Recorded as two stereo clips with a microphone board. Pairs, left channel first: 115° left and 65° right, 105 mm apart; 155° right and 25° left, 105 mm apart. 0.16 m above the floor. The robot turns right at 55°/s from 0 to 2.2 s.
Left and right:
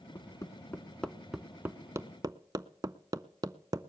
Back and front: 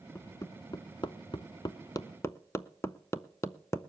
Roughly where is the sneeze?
No sneeze in this recording.